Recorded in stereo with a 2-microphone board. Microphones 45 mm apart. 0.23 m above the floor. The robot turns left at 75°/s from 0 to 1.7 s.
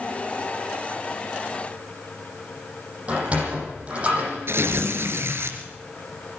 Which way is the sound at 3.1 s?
30° right (ahead or behind).